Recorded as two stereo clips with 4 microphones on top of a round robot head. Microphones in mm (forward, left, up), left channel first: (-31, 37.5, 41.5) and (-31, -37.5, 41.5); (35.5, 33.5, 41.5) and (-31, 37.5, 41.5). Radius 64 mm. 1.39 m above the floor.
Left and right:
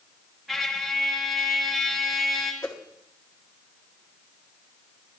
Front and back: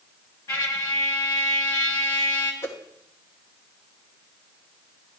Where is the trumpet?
Straight ahead, 1.5 m.